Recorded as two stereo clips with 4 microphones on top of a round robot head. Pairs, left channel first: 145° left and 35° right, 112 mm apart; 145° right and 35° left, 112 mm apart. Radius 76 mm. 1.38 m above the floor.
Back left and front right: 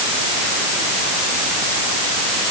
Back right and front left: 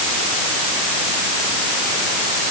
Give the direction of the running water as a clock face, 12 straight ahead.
I don't hear running water.